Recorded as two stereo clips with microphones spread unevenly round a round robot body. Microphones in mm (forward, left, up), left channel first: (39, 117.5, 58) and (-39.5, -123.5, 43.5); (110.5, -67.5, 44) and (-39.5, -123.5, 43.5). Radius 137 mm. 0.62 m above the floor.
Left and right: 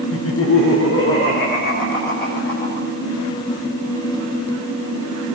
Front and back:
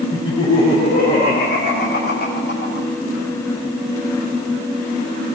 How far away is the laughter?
About 1.3 m.